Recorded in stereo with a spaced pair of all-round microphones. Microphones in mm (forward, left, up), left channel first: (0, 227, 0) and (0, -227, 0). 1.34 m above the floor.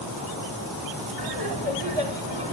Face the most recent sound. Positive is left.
turn(degrees=-55)  # may be behind; listen again after turning